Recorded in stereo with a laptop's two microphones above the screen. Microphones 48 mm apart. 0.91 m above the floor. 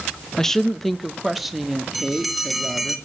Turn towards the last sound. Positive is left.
turn(degrees=0)  # may be behind; listen again after turning